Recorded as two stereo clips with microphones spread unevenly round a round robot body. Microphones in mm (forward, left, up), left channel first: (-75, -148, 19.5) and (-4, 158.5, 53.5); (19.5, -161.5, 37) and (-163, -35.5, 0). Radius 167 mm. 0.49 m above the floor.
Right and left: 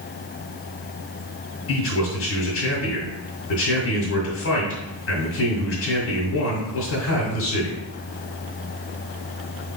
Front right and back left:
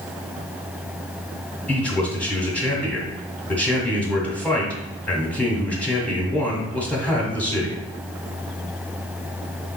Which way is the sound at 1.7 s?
125° right.